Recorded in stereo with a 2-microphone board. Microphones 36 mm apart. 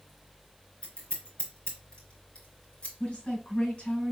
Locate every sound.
0.8 s scissors: 30° left (ahead or behind), 3.5 m
3.0 s a woman speaking: 30° left (ahead or behind), 4 m